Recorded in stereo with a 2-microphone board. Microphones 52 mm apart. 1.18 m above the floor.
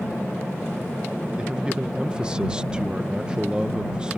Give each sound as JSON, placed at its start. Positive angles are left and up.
{"t": 1.4, "sound": "a man speaking", "side_deg": -20}